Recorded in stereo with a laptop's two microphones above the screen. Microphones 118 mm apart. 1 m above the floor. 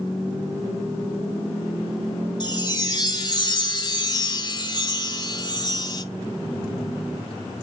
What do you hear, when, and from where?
2.4 s a chime: 35° left (ahead or behind), 0.6 m